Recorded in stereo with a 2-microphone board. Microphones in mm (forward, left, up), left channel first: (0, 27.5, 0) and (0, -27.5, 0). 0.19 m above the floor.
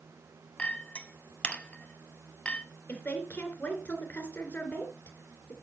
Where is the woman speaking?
25° left (ahead or behind), 3 m.